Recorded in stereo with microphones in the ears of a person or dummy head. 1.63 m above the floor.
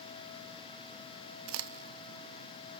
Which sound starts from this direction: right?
A crack, at 1.5 s.